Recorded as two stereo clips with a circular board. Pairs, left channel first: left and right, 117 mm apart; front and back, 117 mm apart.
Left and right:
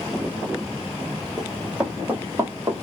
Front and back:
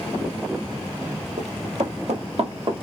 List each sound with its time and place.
1.4 s running footsteps: 175° right, 2 m; by 2.9 s 145° right, 1.5 m